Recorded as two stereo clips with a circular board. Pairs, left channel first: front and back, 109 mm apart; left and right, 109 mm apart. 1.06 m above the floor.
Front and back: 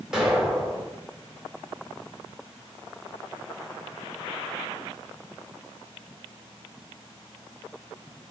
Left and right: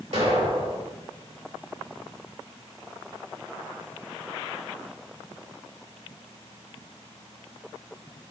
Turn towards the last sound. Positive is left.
turn(degrees=-95)